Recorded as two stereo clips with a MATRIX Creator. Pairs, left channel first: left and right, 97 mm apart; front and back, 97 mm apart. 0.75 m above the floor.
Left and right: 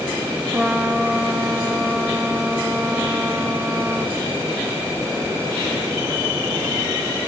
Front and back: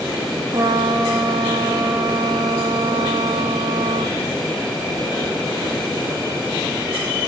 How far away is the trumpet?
About 0.6 m.